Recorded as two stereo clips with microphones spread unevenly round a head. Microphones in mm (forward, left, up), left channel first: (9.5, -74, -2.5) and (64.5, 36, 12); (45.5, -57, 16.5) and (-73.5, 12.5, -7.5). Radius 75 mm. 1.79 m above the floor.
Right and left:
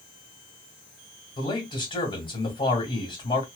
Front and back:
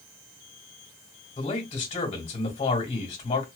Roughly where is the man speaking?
Right.